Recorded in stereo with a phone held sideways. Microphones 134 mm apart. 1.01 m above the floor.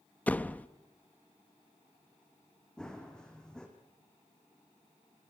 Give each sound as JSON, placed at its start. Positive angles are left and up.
{"t": 0.3, "sound": "a door slam", "side_deg": 10, "distance_m": 0.6}
{"t": 2.8, "sound": "running footsteps", "side_deg": 5, "distance_m": 3.5}